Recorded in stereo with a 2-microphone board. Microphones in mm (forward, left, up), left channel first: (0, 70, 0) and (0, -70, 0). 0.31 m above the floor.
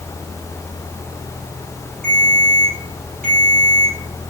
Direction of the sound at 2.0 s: 85° right.